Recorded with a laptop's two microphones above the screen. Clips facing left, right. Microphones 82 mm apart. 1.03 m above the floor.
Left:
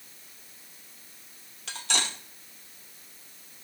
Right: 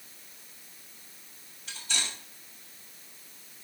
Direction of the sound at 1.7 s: 80° left.